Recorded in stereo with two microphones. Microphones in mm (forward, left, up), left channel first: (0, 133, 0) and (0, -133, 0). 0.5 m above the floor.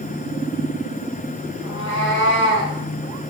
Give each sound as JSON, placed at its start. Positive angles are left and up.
{"t": 1.6, "sound": "a cat meowing", "side_deg": 85, "distance_m": 6.0}